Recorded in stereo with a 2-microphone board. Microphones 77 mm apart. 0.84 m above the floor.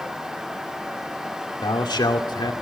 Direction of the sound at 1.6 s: 80° left.